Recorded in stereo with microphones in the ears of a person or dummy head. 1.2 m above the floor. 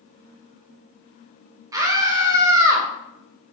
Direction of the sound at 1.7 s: 20° right (ahead or behind).